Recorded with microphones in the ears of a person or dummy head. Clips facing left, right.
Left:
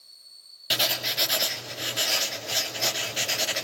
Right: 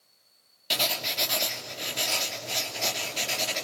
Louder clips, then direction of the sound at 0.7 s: Left 1 dB; 15° left (ahead or behind).